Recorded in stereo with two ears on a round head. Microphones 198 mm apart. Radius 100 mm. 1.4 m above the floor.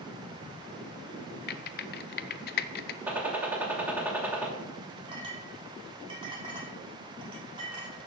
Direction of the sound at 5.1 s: 20° right (ahead or behind).